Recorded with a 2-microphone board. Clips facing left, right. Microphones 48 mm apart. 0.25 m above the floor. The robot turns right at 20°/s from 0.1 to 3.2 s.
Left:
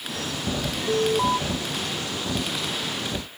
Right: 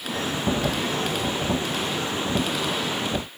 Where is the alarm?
45° left (ahead or behind); by 1.4 s 55° left (ahead or behind).